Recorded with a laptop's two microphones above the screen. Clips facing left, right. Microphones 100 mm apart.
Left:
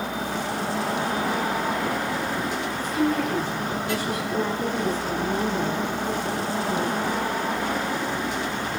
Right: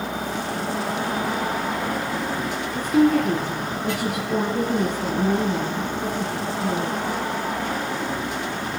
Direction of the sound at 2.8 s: 60° right (ahead or behind).